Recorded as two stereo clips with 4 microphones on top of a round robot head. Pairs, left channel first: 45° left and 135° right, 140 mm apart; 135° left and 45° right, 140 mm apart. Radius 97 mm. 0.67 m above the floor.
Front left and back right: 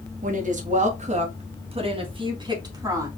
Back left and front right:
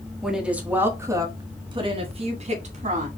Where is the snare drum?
No snare drum in this recording.